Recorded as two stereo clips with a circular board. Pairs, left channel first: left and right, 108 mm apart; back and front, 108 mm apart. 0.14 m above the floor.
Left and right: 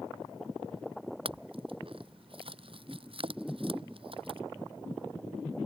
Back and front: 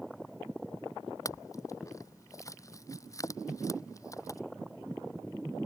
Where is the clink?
120° right.